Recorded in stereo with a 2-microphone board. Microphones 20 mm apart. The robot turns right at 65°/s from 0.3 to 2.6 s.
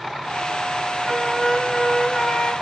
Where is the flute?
135° left, 1.5 m; by 2.5 s 130° right, 1.5 m.